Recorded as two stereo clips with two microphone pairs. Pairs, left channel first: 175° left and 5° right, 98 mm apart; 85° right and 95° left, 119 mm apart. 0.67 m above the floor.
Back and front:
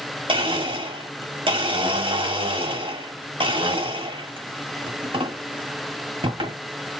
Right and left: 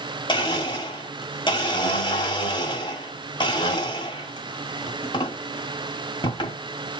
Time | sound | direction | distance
0.3 | a blender | 35° right | 1.7 m